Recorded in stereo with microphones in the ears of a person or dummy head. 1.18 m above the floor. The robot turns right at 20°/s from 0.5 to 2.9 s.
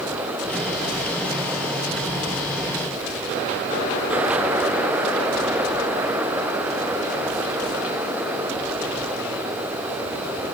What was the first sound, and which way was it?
Only background noise.